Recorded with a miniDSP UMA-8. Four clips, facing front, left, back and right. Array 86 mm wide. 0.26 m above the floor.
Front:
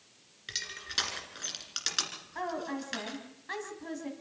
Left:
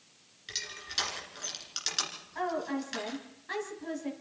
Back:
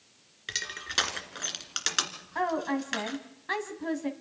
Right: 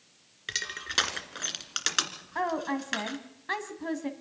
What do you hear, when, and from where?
0.5 s crushing: 115° right, 1.9 m
2.4 s a woman speaking: 125° right, 2 m